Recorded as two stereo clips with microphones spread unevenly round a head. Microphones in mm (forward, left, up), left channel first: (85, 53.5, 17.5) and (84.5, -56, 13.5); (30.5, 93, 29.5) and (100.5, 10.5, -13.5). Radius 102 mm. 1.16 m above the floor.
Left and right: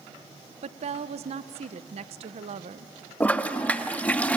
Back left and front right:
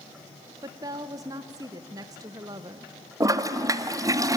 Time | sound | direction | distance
0.6 | a woman speaking | 100° right | 0.7 m
3.2 | a toilet flushing | 15° left | 1.4 m